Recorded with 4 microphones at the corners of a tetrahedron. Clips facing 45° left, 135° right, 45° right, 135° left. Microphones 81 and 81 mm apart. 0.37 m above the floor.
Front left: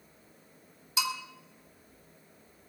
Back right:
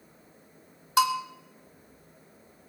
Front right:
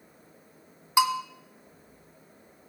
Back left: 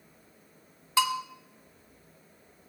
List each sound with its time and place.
1.0 s a bell: 115° right, 1.2 m